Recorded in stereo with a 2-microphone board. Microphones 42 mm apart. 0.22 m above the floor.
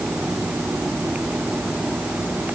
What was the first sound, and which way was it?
Only background noise.